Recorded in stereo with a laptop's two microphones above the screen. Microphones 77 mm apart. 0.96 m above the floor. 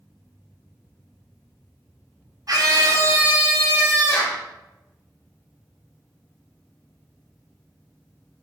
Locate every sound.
2.5 s a scream: 50° right (ahead or behind), 0.7 m; by 4.4 s 20° left (ahead or behind), 1.0 m